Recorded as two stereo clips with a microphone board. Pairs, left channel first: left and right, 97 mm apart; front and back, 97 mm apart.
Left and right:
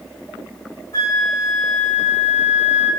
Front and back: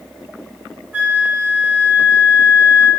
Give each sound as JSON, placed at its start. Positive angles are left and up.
{"t": 0.9, "sound": "a flute", "azimuth_deg": 115, "distance_m": 0.9}